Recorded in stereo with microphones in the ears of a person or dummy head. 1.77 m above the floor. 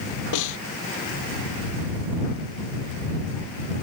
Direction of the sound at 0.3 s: 75° left (ahead or behind).